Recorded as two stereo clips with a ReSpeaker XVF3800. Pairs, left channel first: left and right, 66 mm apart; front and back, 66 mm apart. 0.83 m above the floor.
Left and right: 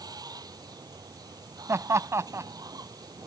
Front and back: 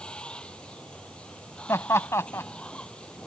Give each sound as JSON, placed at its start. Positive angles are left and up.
{"t": 0.0, "sound": "running water", "azimuth_deg": -75}
{"t": 1.7, "sound": "laughter", "azimuth_deg": -45}